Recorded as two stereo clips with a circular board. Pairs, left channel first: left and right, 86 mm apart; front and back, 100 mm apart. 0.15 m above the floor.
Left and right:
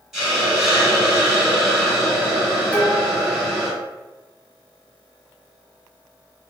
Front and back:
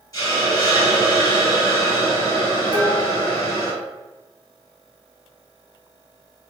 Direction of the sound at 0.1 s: 10° right.